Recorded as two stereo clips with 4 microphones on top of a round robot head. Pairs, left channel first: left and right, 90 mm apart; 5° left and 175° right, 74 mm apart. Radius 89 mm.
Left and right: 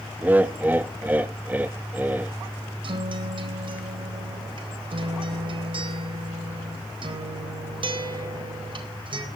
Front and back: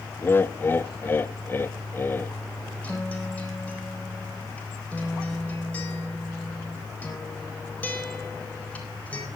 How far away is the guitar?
About 4 m.